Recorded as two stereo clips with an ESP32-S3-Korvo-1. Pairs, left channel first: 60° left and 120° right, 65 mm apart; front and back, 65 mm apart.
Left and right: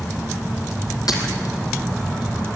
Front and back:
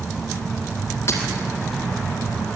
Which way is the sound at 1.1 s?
50° left.